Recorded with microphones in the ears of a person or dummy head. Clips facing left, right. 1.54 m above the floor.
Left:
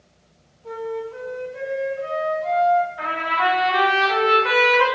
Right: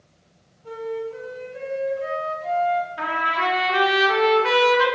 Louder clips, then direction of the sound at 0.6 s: Even; 25° right (ahead or behind).